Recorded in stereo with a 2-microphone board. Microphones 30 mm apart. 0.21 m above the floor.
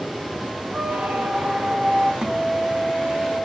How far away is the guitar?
About 2 m.